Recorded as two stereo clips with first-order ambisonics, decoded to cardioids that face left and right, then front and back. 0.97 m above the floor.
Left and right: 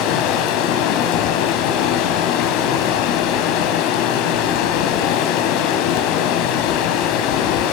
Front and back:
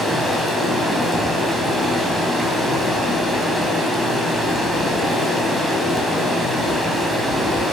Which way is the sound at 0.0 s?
90° left.